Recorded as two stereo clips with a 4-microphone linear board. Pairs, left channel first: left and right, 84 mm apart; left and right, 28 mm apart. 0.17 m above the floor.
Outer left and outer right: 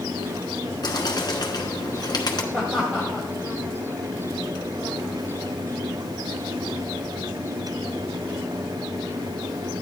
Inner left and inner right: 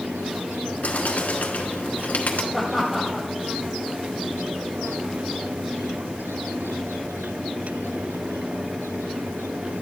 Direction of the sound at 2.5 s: 25° right (ahead or behind).